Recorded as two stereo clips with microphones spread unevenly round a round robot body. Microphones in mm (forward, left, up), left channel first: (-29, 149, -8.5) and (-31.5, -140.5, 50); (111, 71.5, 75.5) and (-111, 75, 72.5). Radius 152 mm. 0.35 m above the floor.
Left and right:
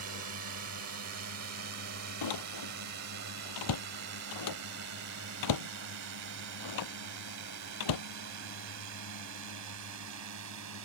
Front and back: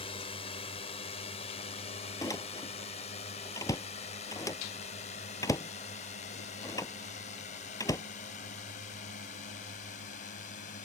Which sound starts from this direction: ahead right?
A drone, at 0.0 s.